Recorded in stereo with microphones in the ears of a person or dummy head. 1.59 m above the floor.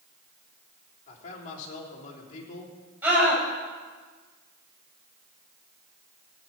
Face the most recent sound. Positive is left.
turn(degrees=-15)  # may be behind; listen again after turning